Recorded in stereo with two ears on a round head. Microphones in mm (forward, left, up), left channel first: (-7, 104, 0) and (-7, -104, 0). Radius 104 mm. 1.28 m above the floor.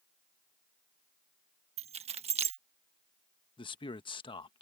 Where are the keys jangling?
30° right (ahead or behind).